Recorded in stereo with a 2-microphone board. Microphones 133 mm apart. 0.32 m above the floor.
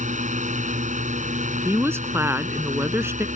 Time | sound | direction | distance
0.0 | a drone | 65° right (ahead or behind) | ?
1.6 | a woman speaking | 20° right (ahead or behind) | ?